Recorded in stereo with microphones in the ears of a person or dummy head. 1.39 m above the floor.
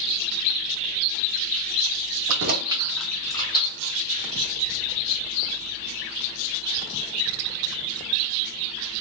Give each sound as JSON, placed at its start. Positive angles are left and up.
{"t": 2.3, "sound": "keys jangling", "side_deg": -65, "distance_m": 0.6}